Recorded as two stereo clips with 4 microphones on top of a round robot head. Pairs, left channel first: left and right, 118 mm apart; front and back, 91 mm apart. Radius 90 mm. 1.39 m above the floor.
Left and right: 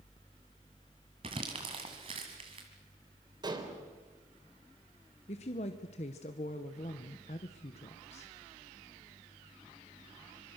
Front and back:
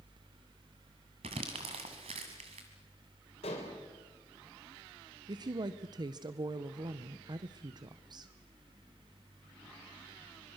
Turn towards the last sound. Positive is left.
turn(degrees=135)